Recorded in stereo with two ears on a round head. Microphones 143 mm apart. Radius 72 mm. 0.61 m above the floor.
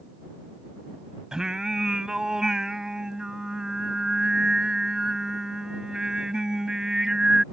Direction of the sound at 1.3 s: 5° right (ahead or behind).